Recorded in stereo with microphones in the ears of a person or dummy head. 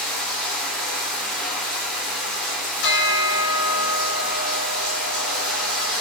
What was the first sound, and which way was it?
Running water, centre (ahead or behind).